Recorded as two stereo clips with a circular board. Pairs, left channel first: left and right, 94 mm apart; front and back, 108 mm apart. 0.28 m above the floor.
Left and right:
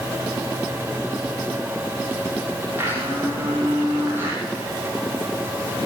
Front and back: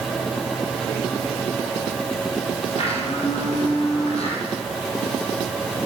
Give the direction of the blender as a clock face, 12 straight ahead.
1 o'clock.